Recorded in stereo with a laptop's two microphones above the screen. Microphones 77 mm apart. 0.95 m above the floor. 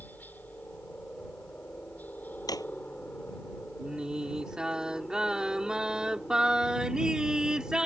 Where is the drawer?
55° left (ahead or behind).